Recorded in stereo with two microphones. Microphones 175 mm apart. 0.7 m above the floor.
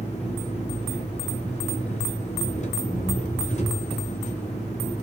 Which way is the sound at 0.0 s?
40° left (ahead or behind).